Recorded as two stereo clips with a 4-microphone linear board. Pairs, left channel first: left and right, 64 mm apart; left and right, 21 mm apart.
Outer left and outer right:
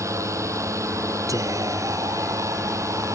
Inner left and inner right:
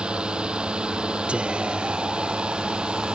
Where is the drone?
50° right (ahead or behind).